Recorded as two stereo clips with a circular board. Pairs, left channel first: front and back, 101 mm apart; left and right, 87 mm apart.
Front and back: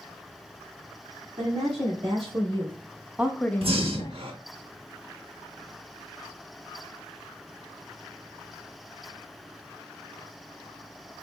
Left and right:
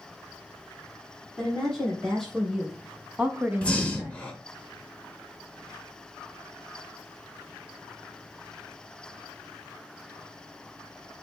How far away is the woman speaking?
About 1.6 m.